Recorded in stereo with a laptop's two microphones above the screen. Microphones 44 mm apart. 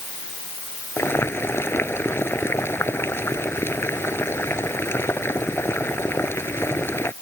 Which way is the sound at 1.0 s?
90° left.